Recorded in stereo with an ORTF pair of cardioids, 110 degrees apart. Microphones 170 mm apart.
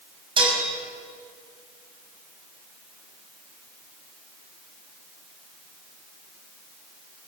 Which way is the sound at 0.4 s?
30° right.